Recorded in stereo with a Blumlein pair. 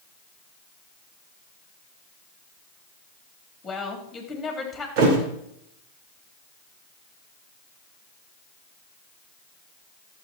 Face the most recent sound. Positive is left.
turn(degrees=-45)